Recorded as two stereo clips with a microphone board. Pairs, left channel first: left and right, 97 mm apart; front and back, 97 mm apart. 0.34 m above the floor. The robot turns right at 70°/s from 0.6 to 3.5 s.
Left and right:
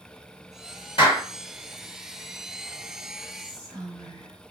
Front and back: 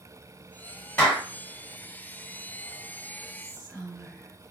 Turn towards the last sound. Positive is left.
turn(degrees=-105)